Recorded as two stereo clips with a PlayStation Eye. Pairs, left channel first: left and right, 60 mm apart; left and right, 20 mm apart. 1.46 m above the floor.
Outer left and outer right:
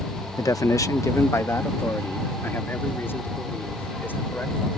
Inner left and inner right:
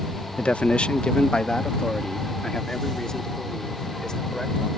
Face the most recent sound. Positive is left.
turn(degrees=35)  # may be behind; listen again after turning